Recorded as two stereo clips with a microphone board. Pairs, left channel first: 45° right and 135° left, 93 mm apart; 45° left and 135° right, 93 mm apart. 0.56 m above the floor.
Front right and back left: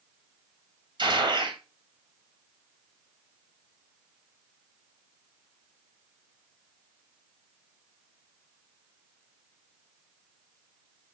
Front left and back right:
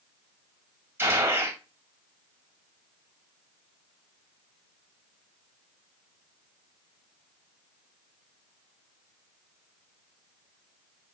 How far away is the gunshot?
About 3 m.